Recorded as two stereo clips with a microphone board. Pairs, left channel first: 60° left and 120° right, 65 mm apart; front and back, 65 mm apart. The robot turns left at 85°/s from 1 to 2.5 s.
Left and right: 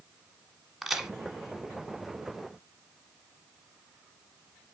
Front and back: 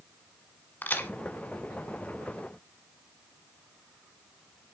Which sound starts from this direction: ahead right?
A crack, at 0.8 s.